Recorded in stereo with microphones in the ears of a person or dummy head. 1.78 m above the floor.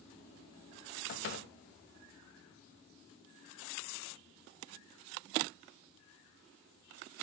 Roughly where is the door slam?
Left.